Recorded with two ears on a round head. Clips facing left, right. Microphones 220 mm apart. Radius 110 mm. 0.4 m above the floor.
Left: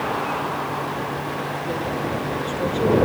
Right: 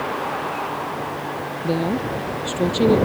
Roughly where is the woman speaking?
Right.